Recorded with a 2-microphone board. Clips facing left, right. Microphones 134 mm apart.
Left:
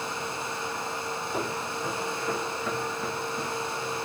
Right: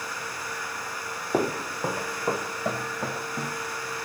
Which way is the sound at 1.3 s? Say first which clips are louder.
Right 8 dB; 60° right (ahead or behind).